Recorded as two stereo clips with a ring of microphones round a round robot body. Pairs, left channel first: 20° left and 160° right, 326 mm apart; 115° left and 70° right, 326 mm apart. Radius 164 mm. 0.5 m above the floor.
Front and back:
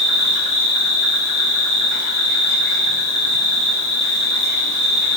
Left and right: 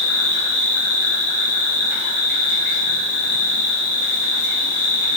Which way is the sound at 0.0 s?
10° left.